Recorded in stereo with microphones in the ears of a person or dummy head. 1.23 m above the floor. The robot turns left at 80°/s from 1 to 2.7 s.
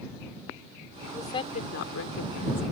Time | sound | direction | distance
1.1 | a woman speaking | 175° left | ?